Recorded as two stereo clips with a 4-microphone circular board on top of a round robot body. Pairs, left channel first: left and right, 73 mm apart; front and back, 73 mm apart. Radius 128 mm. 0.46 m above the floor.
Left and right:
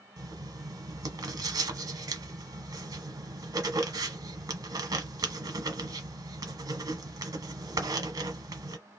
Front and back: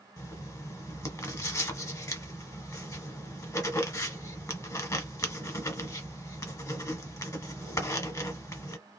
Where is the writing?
50° right, 0.8 m.